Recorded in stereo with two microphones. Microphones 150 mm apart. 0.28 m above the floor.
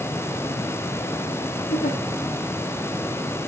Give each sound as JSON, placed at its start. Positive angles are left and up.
{"t": 1.7, "sound": "a giggle", "side_deg": 75, "distance_m": 4.0}